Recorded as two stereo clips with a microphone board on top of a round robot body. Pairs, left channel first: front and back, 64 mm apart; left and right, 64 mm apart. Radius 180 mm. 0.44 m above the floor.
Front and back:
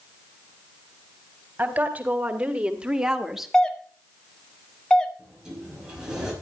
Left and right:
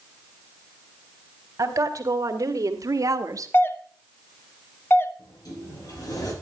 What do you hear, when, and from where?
1.6 s a woman speaking: 115° right, 2.5 m; by 3.5 s 90° right, 1.5 m
3.5 s a doorbell: 75° left, 1.7 m
5.2 s a sliding door: 105° left, 5.5 m